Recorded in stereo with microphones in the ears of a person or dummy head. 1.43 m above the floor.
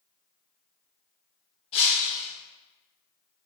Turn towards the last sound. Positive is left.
turn(degrees=35)  # may be behind; listen again after turning